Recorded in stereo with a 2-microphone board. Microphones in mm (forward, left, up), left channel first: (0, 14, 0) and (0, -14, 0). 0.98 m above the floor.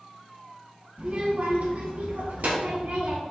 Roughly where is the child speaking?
Right.